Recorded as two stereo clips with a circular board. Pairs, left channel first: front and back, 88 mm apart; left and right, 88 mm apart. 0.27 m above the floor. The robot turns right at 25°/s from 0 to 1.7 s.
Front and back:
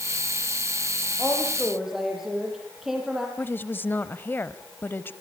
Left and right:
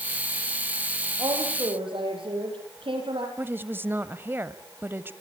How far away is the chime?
I don't hear a chime.